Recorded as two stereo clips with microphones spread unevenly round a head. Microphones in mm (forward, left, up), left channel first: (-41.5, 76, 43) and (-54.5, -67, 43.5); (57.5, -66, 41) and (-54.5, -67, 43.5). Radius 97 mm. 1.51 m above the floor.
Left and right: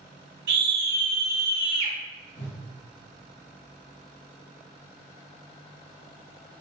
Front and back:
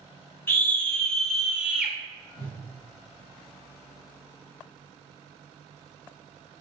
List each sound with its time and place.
0.5 s a scream: 70° right, 1.1 m; by 1.9 s 105° right, 1.3 m
2.4 s a whoosh: 35° left, 0.9 m